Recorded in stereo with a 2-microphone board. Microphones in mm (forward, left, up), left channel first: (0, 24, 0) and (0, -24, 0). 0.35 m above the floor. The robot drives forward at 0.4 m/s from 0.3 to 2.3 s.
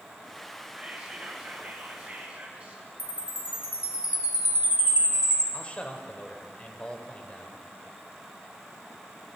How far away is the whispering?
About 1.6 m.